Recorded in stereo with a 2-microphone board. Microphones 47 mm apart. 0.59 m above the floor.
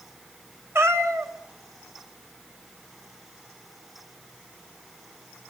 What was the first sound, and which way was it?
A cat meowing, 70° right (ahead or behind).